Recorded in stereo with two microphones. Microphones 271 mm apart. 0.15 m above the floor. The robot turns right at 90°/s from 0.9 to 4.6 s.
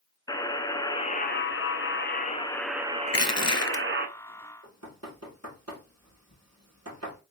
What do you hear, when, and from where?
0.3 s a buzzer: 20° left, 0.5 m; by 4.1 s 55° right, 0.5 m
3.1 s crushing: 60° left, 0.7 m; by 3.8 s 130° left, 0.7 m
4.6 s knocking: 65° right (ahead or behind), 2 m